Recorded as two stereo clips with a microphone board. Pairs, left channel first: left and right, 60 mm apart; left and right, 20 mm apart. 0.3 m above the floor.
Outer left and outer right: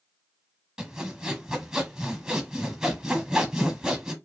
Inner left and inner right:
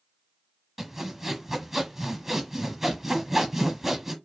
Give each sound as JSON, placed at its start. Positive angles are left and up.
{"t": 0.8, "sound": "sawing", "side_deg": -10, "distance_m": 1.1}